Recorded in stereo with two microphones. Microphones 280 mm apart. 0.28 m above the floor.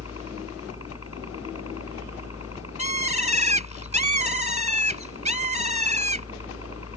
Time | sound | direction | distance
0.0 | a helicopter | 60° left (ahead or behind) | ?
2.8 | a bird | 25° right (ahead or behind) | ?